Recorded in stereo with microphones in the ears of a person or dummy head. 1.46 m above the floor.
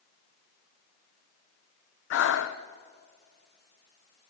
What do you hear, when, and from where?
2.1 s breathing: 70° left (ahead or behind), 0.9 m